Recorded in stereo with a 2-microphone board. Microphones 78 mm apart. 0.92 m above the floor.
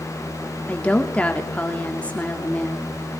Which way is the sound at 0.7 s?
15° left (ahead or behind).